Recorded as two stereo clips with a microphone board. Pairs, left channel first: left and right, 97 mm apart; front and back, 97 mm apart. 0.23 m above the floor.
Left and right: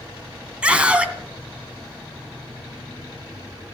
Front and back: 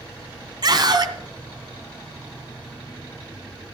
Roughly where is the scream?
Behind.